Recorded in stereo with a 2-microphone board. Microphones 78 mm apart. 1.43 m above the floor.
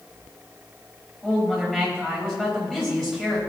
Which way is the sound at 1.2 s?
10° left (ahead or behind).